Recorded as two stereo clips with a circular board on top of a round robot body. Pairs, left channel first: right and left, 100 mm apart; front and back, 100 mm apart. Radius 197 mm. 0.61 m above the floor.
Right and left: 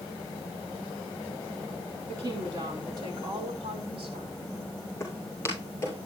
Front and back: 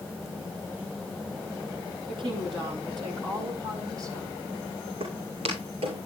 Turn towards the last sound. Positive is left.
turn(degrees=-160)